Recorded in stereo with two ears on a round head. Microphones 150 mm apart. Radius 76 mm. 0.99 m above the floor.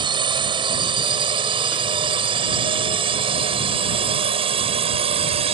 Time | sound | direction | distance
0.0 | a drone | 30° right (ahead or behind) | ?